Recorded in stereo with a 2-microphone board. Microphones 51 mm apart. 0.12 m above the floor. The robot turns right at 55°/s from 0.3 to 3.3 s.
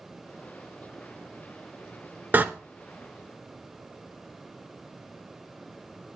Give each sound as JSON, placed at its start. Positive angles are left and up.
{"t": 2.3, "sound": "a door slam", "side_deg": -35, "distance_m": 1.1}